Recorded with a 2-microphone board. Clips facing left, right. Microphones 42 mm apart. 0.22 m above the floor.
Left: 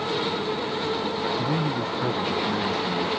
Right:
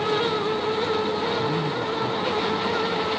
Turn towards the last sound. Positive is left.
turn(degrees=65)  # may be behind; listen again after turning